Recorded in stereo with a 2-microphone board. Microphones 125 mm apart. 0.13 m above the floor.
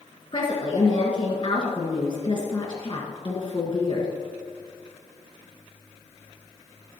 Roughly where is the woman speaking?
Left.